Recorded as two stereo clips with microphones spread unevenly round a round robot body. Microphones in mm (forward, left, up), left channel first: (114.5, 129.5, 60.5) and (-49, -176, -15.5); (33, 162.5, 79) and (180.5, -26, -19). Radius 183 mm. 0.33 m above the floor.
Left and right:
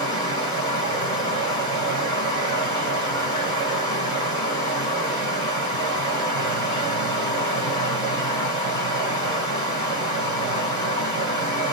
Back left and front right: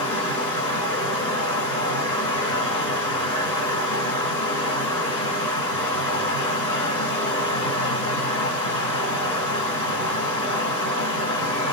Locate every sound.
0.0 s running water: 145° left, 2 m